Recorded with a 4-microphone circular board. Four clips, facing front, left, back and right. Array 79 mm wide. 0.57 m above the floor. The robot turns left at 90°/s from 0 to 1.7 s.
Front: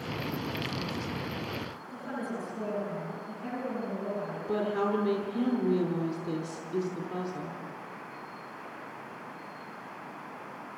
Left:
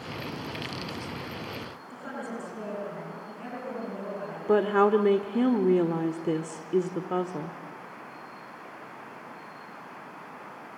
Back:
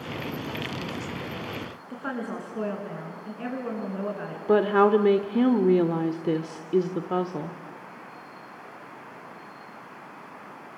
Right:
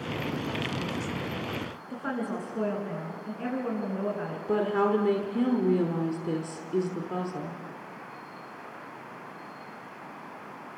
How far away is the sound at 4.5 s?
About 1.2 m.